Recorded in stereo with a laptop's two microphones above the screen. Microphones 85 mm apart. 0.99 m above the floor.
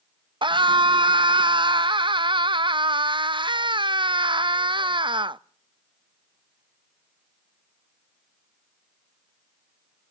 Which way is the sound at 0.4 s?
75° right (ahead or behind).